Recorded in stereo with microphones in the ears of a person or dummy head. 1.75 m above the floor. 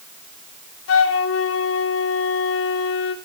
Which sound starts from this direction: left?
A flute, at 0.9 s.